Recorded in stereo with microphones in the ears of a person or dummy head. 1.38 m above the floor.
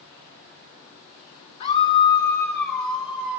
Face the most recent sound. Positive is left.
turn(degrees=-5)  # may be behind; listen again after turning